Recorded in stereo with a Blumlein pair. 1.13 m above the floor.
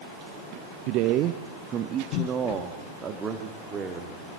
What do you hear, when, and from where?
0.9 s a man speaking: 45° right, 0.7 m; by 4.4 s 20° right, 2.5 m